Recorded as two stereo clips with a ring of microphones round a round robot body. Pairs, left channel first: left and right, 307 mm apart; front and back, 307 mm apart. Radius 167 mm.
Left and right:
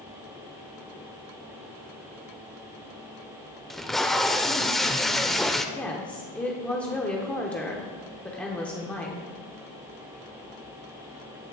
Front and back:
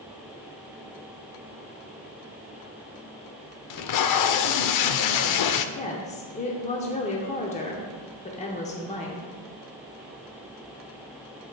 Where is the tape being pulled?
Straight ahead, 0.5 m.